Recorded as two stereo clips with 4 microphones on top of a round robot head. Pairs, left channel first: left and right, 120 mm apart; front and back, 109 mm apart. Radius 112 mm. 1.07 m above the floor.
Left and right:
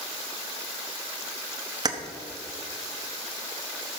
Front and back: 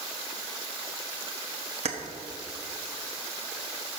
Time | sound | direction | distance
1.9 | keys jangling | 145° right | 1.0 m